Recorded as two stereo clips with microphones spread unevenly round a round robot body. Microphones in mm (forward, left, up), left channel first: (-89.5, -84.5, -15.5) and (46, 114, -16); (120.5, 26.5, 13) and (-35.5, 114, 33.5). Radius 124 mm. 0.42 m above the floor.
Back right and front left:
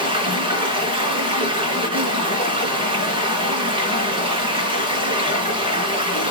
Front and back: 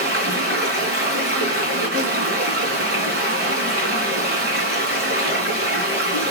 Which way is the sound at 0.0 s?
125° left.